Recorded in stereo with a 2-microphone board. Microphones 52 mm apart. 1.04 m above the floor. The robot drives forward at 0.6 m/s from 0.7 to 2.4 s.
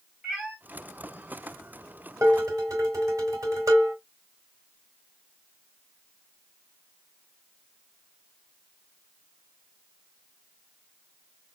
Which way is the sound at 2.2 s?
90° right.